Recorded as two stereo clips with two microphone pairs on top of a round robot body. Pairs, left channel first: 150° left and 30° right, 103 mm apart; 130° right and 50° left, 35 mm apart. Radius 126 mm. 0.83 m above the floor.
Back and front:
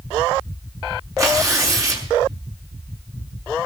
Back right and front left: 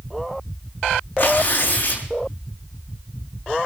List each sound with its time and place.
1.2 s tearing paper: 90° right, 5 m